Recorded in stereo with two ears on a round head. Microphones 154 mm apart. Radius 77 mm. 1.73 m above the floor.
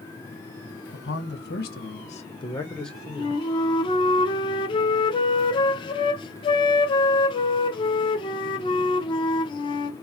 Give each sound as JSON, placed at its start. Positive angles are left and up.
{"t": 0.9, "sound": "a man speaking", "side_deg": 75, "distance_m": 2.0}
{"t": 3.1, "sound": "a flute", "side_deg": 30, "distance_m": 0.7}